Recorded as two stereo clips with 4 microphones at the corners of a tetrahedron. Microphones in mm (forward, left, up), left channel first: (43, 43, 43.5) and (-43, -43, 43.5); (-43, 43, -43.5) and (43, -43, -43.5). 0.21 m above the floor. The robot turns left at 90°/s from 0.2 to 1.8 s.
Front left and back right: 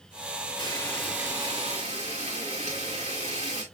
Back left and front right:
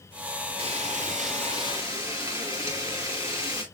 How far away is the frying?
About 5.5 m.